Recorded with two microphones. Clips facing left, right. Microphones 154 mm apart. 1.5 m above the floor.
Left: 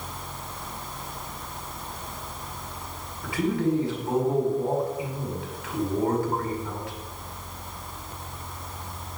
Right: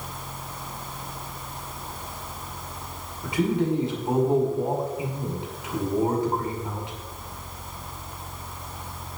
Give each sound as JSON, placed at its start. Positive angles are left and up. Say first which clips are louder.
{"t": 3.2, "sound": "a man speaking", "louder": "right 1 dB", "side_deg": -20, "distance_m": 5.0}